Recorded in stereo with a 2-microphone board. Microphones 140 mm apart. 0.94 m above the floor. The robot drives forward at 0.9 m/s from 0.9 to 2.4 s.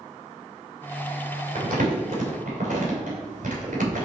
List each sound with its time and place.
1.6 s crumpling: 80° right, 3 m